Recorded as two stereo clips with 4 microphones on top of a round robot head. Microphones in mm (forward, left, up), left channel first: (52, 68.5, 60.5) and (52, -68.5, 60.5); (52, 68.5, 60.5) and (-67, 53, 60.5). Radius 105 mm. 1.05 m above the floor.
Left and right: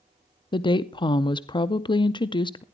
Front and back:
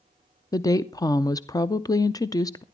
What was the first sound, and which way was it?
A woman speaking, 55° left.